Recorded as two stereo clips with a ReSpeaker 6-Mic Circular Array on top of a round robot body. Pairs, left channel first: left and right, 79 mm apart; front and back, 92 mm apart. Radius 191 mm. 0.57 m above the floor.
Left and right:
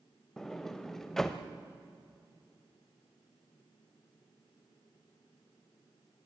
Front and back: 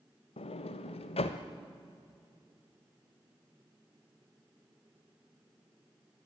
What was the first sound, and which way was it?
A sliding door, 5° left.